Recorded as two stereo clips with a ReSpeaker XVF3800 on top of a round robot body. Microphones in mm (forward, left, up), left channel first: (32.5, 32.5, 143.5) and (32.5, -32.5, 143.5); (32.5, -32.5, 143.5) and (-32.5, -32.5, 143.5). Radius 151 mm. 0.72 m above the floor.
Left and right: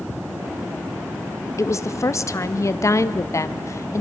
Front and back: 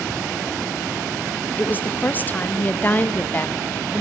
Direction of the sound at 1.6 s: 60° left.